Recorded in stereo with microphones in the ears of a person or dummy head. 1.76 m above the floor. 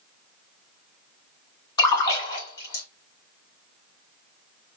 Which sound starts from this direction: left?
A splash, at 1.8 s.